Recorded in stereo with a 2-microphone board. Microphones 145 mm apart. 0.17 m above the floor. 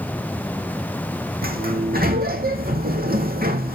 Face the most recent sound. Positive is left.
turn(degrees=-85)